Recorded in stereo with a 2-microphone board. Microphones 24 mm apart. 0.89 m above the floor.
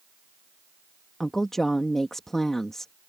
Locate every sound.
1.2 s a woman speaking: 20° left (ahead or behind)